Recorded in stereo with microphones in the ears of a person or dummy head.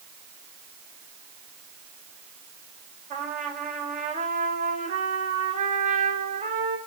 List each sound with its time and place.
3.1 s a trumpet: 40° right (ahead or behind), 3 m